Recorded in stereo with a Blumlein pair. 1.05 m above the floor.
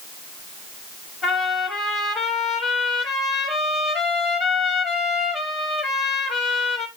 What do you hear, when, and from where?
1.2 s a trumpet: 25° left, 1.6 m